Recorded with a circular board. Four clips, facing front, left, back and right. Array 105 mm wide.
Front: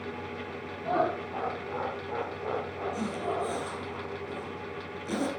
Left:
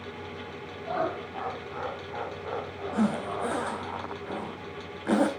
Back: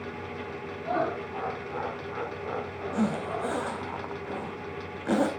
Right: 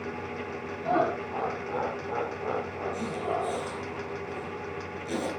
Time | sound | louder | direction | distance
0.8 | laughter | right 4 dB, front 1 dB | 75° right | 4.5 m
2.9 | a zipper | left 4 dB, back 5 dB | 130° left | 3 m